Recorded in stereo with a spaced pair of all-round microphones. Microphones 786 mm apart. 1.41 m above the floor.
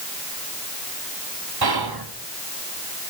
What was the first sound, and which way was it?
Whispering, 30° right (ahead or behind).